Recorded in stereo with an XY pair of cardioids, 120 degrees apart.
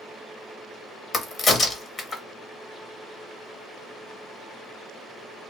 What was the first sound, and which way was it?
A crack, 35° left.